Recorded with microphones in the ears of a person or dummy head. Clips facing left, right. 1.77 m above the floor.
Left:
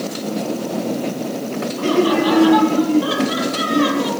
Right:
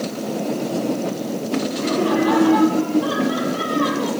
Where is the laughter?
60° left (ahead or behind), 5 m; by 4.1 s 40° left (ahead or behind), 4 m.